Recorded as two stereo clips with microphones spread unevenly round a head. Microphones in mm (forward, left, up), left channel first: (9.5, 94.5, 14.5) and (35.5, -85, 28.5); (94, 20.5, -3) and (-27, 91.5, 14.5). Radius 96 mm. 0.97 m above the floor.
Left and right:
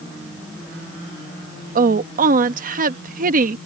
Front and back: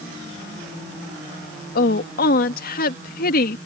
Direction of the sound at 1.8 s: 40° right.